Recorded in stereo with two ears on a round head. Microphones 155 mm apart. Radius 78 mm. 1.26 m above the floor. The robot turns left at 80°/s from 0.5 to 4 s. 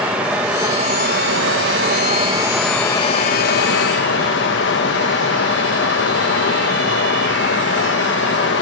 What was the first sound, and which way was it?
Running water, 10° right.